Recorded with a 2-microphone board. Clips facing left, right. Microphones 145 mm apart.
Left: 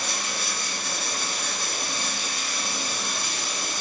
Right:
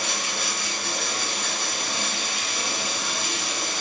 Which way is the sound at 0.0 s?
70° right (ahead or behind).